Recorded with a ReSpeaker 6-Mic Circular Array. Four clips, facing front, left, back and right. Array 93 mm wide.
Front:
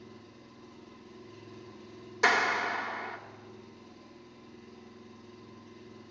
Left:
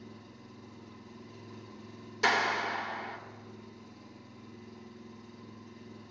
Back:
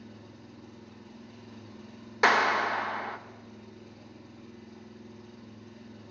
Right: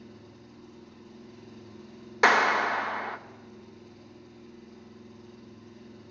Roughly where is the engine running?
Behind.